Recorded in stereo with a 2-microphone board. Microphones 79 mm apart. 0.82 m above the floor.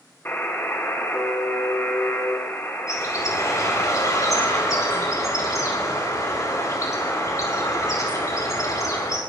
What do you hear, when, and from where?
0.2 s a buzzer: 30° left (ahead or behind), 3.5 m
2.9 s a bird: 45° left (ahead or behind), 4.5 m